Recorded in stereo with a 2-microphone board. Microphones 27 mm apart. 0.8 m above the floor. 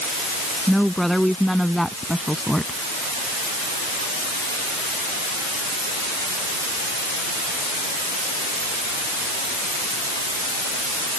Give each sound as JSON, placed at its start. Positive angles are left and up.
{"t": 0.7, "sound": "a woman speaking", "side_deg": 5}